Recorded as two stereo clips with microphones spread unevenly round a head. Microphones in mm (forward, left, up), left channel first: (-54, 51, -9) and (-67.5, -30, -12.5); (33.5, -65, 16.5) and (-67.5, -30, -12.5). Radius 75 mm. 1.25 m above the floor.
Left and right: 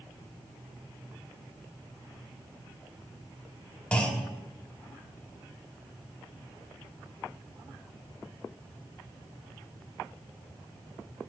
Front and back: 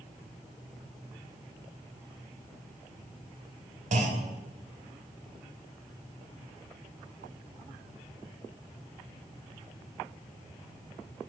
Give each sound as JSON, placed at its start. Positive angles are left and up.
{"t": 3.9, "sound": "a clunk", "azimuth_deg": 145, "distance_m": 1.6}